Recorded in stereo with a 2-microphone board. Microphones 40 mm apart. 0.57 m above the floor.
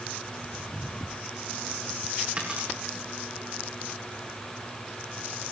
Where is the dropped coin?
30° right (ahead or behind), 4 m.